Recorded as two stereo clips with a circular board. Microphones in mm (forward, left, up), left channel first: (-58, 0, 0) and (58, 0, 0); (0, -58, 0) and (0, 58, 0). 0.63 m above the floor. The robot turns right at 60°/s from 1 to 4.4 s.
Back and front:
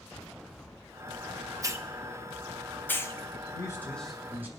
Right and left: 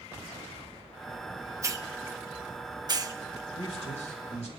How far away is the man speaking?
About 1.9 m.